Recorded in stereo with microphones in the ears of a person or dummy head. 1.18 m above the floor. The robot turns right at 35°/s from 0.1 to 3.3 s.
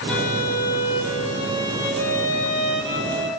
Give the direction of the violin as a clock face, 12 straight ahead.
6 o'clock.